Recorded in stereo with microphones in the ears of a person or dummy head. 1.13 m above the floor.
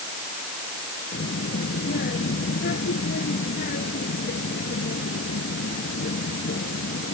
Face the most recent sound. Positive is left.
turn(degrees=60)  # may be behind; listen again after turning